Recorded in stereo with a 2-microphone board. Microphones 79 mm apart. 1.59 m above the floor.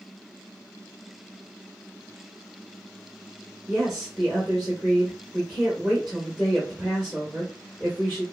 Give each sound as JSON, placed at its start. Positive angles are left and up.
{"t": 3.7, "sound": "a woman speaking", "side_deg": -5, "distance_m": 1.3}